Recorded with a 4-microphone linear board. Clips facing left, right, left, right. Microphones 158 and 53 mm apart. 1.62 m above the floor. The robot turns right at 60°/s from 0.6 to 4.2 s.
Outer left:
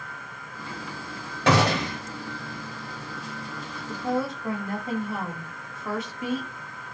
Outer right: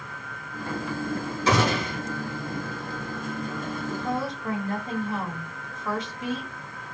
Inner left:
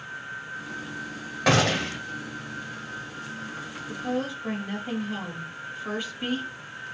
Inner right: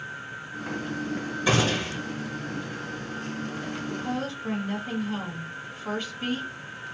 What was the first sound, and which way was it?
A gunshot, 70° left.